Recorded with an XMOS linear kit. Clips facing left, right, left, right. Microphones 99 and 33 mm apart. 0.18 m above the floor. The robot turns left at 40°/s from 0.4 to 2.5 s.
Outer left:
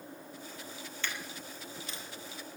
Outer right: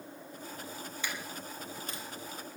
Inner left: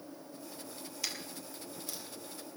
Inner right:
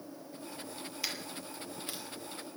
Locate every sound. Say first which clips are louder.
1.0 s a dropped coin: even, inner right 1 dB; 15° right (ahead or behind), 2 m; by 2.0 s 50° right (ahead or behind), 2 m